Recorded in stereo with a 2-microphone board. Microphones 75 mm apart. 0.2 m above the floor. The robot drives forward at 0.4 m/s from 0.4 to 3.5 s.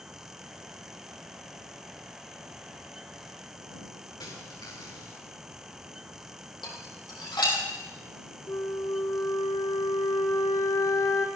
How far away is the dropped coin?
About 6 m.